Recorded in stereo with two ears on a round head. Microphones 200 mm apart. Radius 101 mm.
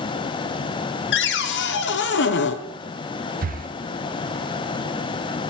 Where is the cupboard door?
50° left (ahead or behind), 0.7 m.